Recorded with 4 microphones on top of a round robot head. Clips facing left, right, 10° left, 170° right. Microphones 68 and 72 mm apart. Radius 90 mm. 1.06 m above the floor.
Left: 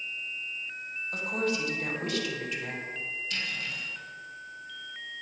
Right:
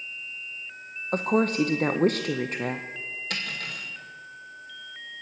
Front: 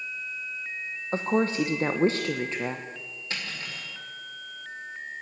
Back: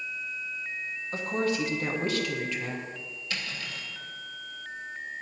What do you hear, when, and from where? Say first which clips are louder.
1.1 s a woman speaking: right 8 dB, front 4 dB; 50° right, 0.7 m
3.3 s cutlery clinking: right 3 dB, front 1 dB; 55° right, 2 m